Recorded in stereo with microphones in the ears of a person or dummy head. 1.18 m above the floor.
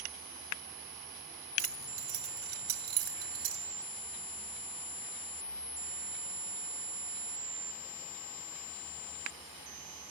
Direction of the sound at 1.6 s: 60° right (ahead or behind).